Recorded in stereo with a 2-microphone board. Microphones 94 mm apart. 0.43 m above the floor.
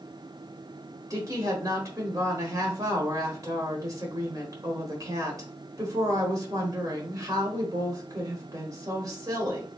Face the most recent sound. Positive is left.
turn(degrees=-35)  # may be behind; listen again after turning